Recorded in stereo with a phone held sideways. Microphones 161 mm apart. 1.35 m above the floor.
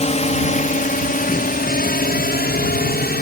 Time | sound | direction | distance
0.0 | a drone | 45° left (ahead or behind) | ?